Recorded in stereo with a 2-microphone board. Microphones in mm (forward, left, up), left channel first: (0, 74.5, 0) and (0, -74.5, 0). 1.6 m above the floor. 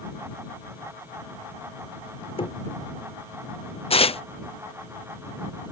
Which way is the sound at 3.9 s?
40° left (ahead or behind).